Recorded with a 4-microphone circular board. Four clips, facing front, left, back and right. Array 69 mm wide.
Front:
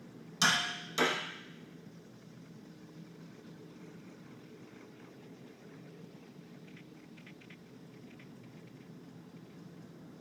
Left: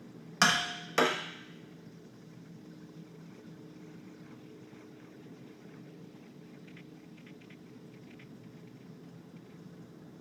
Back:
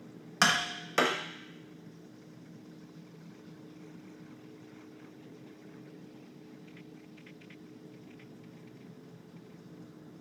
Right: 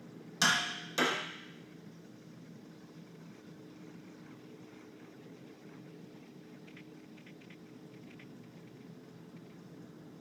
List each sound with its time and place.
0.4 s tapping: 140° left, 0.6 m